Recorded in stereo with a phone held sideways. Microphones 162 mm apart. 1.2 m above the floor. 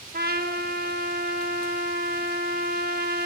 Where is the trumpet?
80° right, 1.3 m.